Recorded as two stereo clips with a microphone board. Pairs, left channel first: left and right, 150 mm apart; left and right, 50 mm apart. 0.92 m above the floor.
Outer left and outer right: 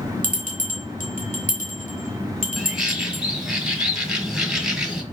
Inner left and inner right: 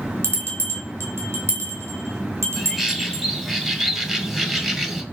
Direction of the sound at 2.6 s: 5° right (ahead or behind).